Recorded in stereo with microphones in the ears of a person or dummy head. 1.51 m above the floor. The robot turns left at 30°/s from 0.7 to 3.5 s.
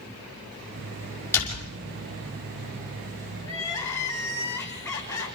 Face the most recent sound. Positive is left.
turn(degrees=15)  # may be behind; listen again after turning